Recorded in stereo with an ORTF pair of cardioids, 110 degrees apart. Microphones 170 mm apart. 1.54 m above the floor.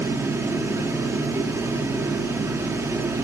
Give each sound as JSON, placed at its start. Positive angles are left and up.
{"t": 0.0, "sound": "a fan", "azimuth_deg": -15, "distance_m": 1.2}